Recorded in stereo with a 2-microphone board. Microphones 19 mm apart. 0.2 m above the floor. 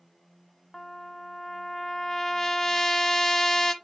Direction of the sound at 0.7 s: 15° left (ahead or behind).